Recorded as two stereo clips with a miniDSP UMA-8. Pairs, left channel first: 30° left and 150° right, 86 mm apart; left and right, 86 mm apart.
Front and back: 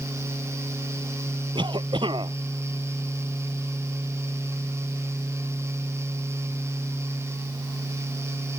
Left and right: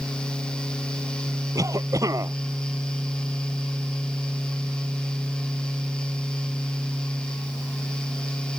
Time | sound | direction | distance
1.6 | a cough | 135° right | ?